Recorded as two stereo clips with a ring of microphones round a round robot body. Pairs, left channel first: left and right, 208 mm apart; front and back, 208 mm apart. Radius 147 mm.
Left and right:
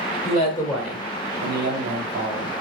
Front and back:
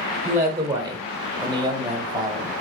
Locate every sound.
0.2 s a man speaking: 100° left, 1.2 m; by 2.5 s 110° right, 2.5 m